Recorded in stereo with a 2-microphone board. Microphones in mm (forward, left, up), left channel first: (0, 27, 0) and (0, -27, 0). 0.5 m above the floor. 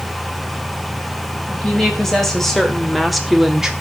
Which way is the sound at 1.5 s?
10° left (ahead or behind).